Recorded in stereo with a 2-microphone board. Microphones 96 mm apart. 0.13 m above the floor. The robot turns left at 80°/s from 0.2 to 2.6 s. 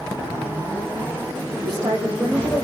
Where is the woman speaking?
130° right, 5.5 m; by 2.6 s 155° left, 5.5 m.